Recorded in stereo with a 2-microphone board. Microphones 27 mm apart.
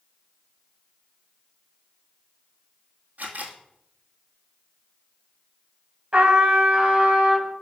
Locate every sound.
3.2 s a camera shutter: 65° right (ahead or behind), 1.8 m
6.1 s a trumpet: 35° right (ahead or behind), 1.7 m